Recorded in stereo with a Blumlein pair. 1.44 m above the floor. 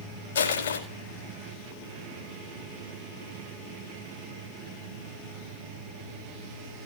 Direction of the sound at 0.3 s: 65° left.